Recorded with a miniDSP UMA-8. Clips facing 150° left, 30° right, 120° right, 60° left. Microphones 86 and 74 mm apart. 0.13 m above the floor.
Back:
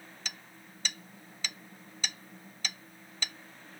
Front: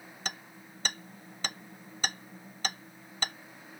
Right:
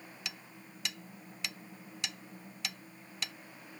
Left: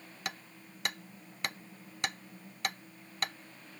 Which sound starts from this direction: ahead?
Hammering, at 0.2 s.